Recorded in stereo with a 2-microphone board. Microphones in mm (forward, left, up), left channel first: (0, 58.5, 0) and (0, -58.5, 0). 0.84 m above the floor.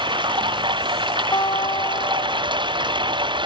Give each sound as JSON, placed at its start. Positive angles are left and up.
{"t": 0.0, "sound": "running water", "side_deg": -45}
{"t": 1.3, "sound": "a guitar", "side_deg": 40}